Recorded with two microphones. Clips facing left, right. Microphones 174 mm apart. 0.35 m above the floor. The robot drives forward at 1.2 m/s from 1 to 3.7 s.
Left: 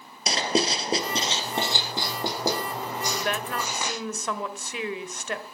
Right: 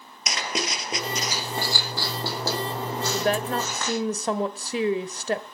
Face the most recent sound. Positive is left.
turn(degrees=-35)  # may be behind; listen again after turning